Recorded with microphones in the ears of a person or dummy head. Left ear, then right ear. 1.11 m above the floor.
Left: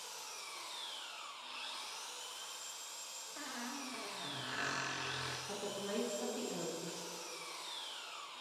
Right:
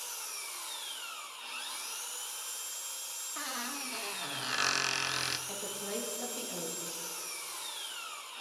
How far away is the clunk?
I don't hear a clunk.